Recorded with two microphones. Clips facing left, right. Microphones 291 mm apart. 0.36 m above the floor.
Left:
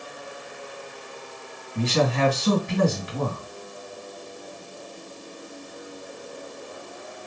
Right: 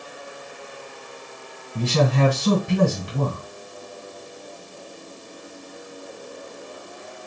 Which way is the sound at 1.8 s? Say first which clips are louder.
Right 2 dB; 45° right (ahead or behind).